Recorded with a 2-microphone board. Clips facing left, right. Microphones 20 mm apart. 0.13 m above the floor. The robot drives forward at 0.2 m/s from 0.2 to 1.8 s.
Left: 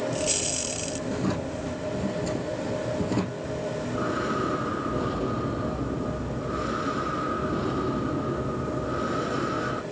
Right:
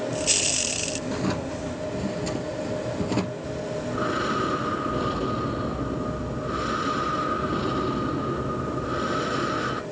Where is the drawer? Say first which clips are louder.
Left 1 dB; 30° right (ahead or behind), 2.5 m; by 3.3 s 35° right (ahead or behind), 2.5 m.